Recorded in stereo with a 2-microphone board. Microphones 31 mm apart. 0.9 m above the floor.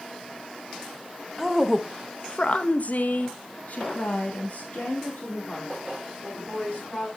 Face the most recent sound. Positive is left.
turn(degrees=50)  # may be behind; listen again after turning